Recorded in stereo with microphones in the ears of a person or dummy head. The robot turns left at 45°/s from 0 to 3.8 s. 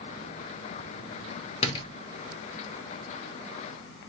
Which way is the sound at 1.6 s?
40° left (ahead or behind).